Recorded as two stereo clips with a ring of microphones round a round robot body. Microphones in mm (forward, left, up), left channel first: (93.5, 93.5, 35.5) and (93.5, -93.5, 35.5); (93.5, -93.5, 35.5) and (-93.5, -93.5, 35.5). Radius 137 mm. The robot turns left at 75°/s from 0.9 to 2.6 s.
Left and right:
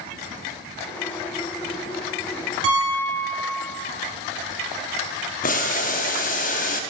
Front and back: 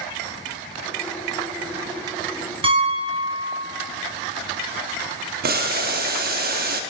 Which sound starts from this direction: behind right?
A piano, at 2.6 s.